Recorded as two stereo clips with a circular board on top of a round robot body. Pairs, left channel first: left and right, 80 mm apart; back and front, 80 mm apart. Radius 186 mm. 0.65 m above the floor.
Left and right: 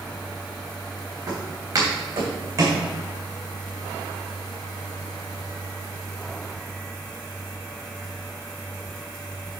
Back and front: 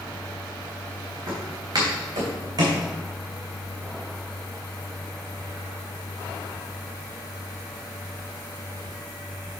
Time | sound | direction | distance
1.3 | footsteps | 45° right | 3.5 m